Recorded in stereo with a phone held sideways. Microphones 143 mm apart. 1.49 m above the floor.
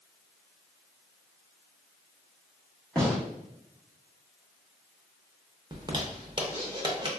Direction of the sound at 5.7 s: 35° right (ahead or behind).